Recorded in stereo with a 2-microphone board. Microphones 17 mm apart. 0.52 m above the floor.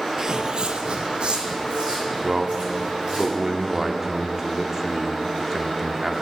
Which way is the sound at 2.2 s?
25° right (ahead or behind).